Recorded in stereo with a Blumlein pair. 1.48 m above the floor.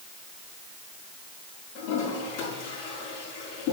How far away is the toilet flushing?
About 6 m.